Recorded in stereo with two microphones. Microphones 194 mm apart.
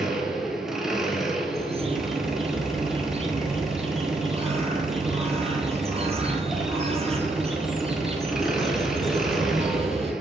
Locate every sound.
0.0 s an engine running: centre (ahead or behind), 1.0 m
1.5 s a bird: 30° right (ahead or behind), 0.9 m